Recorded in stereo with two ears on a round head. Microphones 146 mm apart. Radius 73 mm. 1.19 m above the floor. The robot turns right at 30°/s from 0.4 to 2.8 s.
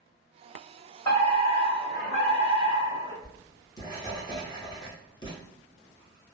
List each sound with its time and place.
1.1 s a fire alarm: 40° left, 1.8 m; by 3.1 s 90° left, 1.8 m
3.2 s writing: 25° left (ahead or behind), 0.7 m